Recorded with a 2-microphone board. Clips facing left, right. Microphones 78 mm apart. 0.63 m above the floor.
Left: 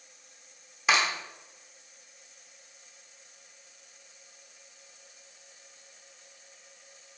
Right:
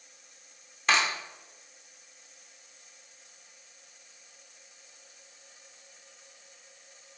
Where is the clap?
5° left (ahead or behind), 1.4 m.